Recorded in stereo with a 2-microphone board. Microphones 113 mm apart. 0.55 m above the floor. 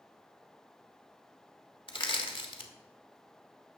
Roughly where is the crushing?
Left.